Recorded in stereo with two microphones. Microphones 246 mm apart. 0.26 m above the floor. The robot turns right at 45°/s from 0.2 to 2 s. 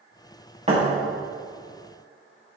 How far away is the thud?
About 3.5 m.